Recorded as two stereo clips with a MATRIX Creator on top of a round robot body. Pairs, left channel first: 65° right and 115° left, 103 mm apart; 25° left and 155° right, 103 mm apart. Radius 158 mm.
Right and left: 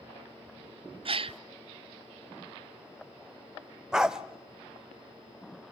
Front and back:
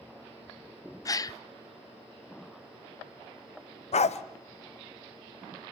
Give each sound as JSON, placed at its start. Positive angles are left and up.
{"t": 1.1, "sound": "a gasp", "azimuth_deg": 80, "distance_m": 0.6}
{"t": 3.9, "sound": "a dog barking", "azimuth_deg": 30, "distance_m": 0.7}